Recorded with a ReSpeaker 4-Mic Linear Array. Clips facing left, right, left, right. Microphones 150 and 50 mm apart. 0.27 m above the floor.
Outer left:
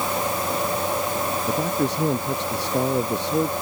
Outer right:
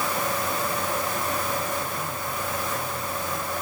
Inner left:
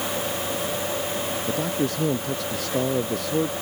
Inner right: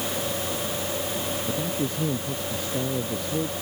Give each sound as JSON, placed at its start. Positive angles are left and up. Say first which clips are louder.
{"t": 1.5, "sound": "a man speaking", "louder": "outer left 6 dB, inner left 5 dB", "side_deg": 85}